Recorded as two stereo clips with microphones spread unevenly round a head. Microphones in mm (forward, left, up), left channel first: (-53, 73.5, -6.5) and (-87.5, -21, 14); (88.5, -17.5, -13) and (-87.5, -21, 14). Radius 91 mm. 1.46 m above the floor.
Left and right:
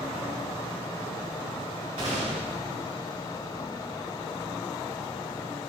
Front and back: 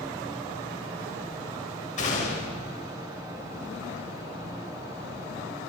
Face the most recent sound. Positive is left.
turn(degrees=-45)